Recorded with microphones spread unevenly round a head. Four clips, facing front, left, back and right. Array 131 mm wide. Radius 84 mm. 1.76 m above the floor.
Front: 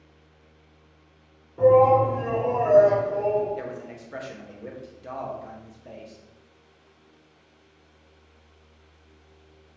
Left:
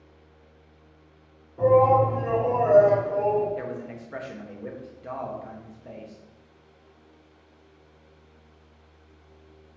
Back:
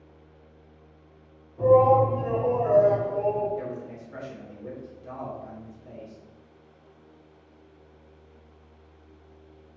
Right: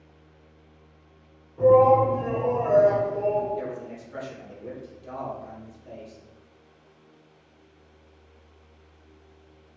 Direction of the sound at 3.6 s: 40° left.